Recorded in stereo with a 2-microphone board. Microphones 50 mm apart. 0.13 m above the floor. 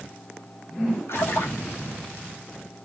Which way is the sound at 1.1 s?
55° left (ahead or behind).